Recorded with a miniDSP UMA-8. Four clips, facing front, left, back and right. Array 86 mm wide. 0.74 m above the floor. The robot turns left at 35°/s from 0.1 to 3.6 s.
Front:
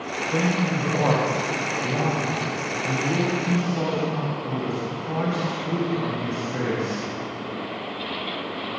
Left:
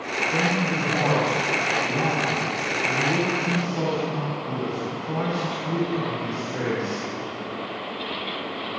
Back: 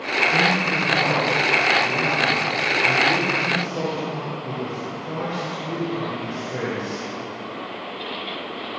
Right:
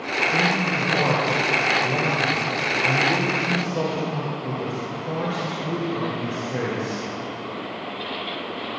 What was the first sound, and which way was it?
A man speaking, 10° right.